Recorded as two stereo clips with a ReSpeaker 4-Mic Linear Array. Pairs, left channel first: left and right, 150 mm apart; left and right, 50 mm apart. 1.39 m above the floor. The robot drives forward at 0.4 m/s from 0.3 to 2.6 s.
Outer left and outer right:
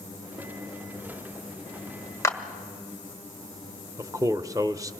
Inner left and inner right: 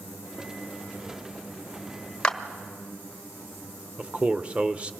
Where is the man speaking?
20° right (ahead or behind), 0.9 m.